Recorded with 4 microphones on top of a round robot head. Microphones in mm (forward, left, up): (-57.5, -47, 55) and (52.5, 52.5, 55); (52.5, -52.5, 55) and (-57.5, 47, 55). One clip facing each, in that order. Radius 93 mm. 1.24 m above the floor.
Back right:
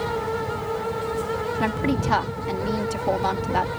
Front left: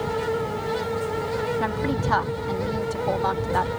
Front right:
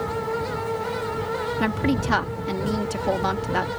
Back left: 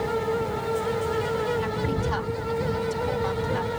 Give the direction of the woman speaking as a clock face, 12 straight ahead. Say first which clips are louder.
Back right 2 dB, front right 4 dB; 2 o'clock.